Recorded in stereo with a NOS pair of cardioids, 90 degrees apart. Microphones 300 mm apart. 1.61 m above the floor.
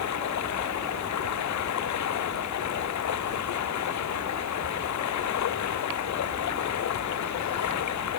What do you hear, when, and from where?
0.0 s running water: 65° left